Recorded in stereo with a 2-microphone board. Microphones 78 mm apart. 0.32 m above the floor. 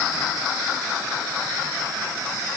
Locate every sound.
Only background noise.